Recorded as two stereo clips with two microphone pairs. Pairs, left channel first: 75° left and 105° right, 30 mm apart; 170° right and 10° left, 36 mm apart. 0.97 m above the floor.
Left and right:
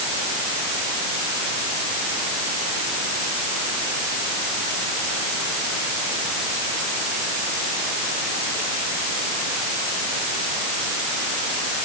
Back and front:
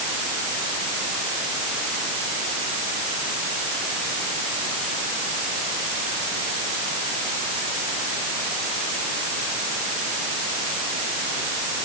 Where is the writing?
No writing in this recording.